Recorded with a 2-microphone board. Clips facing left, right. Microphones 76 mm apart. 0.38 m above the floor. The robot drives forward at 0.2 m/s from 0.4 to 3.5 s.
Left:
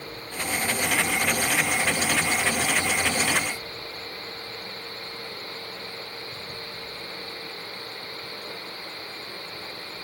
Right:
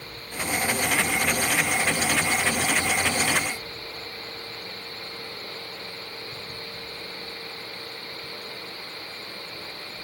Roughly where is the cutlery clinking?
No cutlery clinking in this recording.